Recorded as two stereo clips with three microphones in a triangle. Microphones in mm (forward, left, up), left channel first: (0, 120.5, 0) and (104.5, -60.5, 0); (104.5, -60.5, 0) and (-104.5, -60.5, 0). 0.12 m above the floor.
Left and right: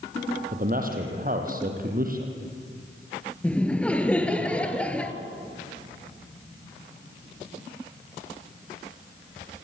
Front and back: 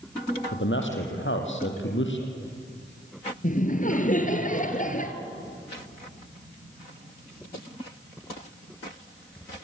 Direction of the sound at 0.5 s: 15° right.